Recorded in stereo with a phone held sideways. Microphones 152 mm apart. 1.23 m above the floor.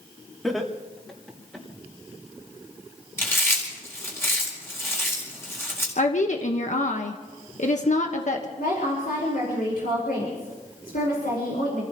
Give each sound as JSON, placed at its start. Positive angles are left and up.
{"t": 0.4, "sound": "laughter", "side_deg": 0, "distance_m": 2.0}
{"t": 3.2, "sound": "chewing", "side_deg": 15, "distance_m": 4.5}
{"t": 6.0, "sound": "a woman speaking", "side_deg": 55, "distance_m": 1.4}
{"t": 8.6, "sound": "a woman speaking", "side_deg": 80, "distance_m": 5.5}